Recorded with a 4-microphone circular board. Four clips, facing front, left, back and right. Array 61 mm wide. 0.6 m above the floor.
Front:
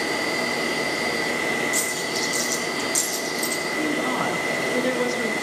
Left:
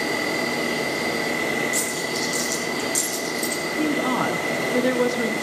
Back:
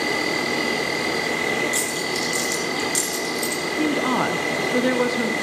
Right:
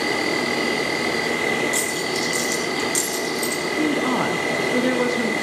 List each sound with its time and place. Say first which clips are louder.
0.0 s an insect: right 2 dB, back 2 dB; 125° right, 3 m
1.7 s a dropped coin: right 2 dB, back 1 dB; 135° right, 5.5 m
3.8 s a woman speaking: right 1 dB, back 4 dB; 165° right, 1.1 m